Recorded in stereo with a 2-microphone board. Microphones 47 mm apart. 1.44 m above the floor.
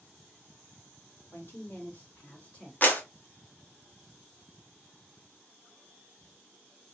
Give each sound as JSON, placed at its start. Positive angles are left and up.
{"t": 1.3, "sound": "a woman speaking", "side_deg": 50, "distance_m": 2.0}
{"t": 2.8, "sound": "a clap", "side_deg": 35, "distance_m": 1.0}